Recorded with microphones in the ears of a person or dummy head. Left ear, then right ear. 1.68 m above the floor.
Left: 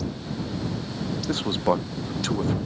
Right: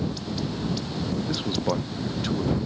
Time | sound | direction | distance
1.3 | a man speaking | 35° left (ahead or behind) | ?